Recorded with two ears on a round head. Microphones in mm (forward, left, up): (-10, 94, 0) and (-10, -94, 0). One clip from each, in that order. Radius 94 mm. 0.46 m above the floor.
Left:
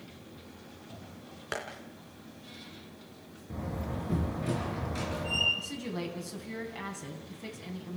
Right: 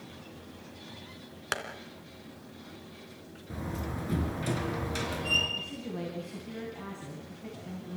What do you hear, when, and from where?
1.5 s tapping: 35° right (ahead or behind), 2.5 m
3.5 s a door slam: 50° right (ahead or behind), 5 m
5.6 s a woman speaking: 65° left (ahead or behind), 3.5 m